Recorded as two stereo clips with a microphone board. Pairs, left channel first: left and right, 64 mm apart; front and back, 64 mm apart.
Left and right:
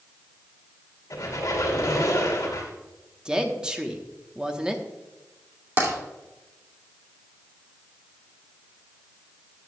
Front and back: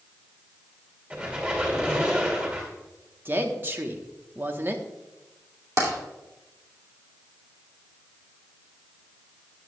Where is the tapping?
140° right, 2.5 m.